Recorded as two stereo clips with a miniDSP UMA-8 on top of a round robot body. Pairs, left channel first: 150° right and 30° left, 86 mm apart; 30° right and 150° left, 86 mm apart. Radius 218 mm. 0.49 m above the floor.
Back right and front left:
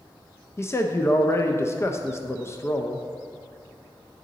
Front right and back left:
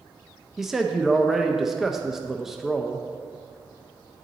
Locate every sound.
0.6 s a man speaking: 125° right, 0.7 m